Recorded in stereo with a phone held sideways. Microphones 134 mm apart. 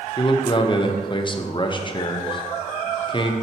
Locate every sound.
0.2 s a man speaking: 35° left (ahead or behind), 0.6 m